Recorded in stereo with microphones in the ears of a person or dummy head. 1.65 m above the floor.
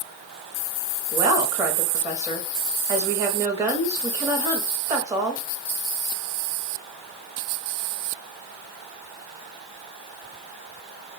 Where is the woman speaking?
10° right (ahead or behind), 0.9 m.